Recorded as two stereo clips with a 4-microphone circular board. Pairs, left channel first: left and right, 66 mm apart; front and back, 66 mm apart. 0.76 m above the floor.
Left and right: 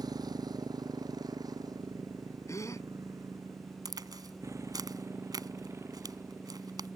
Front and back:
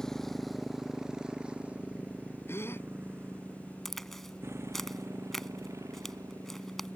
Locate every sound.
0.0 s a motorcycle: 85° right; by 7.0 s 140° right
2.5 s a gasp: 55° left
3.9 s a crack: 85° right